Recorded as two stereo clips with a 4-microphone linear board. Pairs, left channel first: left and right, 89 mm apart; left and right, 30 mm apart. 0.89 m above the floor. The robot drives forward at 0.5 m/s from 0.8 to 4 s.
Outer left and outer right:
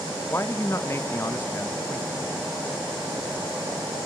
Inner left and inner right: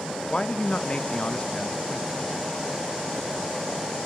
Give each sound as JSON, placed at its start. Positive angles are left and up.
{"t": 0.3, "sound": "a man speaking", "side_deg": 30, "distance_m": 0.5}